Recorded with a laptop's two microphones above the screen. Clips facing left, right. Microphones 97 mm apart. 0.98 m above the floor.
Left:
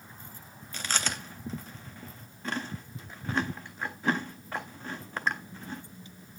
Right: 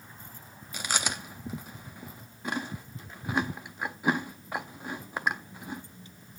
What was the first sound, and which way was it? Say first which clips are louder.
Chewing: right 1 dB; 10° right (ahead or behind).